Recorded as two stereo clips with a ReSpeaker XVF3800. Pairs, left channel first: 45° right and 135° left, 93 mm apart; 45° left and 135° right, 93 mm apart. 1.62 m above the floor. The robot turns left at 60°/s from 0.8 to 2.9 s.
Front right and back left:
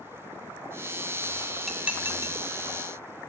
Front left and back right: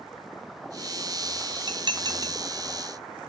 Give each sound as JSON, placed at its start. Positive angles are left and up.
{"t": 1.7, "sound": "dishes clattering", "azimuth_deg": -135, "distance_m": 1.0}